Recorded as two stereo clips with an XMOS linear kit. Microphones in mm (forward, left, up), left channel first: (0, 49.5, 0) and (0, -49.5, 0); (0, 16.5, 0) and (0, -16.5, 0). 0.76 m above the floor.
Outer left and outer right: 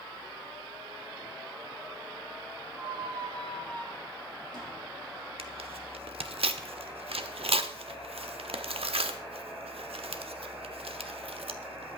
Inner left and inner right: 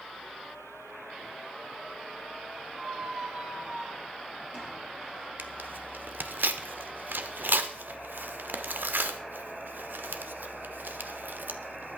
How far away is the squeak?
About 4 m.